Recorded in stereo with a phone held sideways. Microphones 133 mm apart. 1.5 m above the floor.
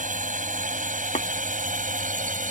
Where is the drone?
75° right (ahead or behind); by 2.5 s 80° right.